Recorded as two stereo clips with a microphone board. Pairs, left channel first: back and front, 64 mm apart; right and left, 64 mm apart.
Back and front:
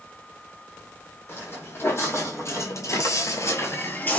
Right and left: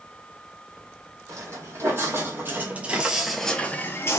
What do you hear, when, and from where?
1.3 s footsteps: 130° left, 1.3 m; by 4.2 s 120° right, 0.6 m